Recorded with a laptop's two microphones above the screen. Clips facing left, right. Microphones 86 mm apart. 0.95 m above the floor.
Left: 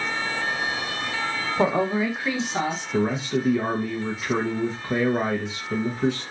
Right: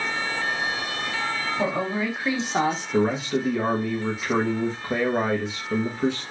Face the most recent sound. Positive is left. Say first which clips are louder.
# even
turn(degrees=-10)  # may be behind; listen again after turning